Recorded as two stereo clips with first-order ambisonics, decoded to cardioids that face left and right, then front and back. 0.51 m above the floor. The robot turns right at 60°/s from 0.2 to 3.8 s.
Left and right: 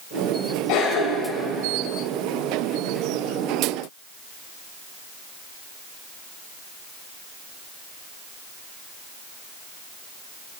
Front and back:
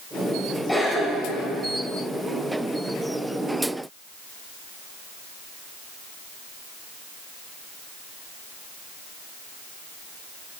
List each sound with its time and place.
0.7 s a cough: 85° left, 3 m; by 1.5 s 130° left, 3 m